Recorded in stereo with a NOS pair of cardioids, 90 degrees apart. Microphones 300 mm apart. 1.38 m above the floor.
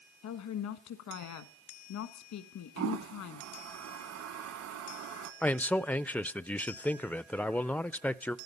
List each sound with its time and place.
0.2 s a woman speaking: 70° left, 1.5 m
2.8 s a toilet flushing: 60° right, 1.7 m
5.4 s a man speaking: 5° left, 0.5 m